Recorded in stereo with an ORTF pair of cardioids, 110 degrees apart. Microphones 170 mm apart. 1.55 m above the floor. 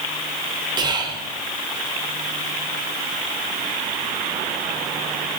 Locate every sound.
0.8 s whispering: 25° right, 0.5 m